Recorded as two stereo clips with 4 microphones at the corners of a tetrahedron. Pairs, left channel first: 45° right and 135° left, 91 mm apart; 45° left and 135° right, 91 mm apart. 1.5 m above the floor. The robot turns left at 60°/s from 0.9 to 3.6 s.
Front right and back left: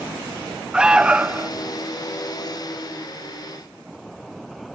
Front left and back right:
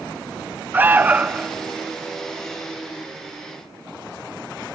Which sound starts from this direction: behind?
An alarm, at 0.7 s.